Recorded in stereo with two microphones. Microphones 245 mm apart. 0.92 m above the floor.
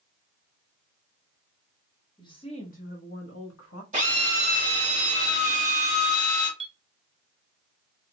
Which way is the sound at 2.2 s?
15° left (ahead or behind).